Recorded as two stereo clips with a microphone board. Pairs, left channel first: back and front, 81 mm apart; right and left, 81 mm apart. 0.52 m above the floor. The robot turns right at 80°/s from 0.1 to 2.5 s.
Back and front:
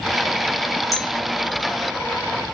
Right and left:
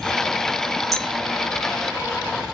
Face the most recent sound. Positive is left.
turn(degrees=-100)